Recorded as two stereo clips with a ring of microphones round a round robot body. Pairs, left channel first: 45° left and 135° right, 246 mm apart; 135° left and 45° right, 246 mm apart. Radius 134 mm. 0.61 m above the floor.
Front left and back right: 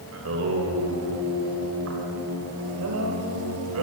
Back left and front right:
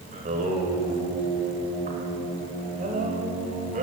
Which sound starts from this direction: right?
Singing, at 0.1 s.